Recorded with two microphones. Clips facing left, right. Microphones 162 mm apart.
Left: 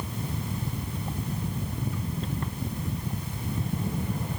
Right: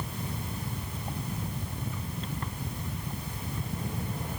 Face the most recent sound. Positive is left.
No sound to turn to.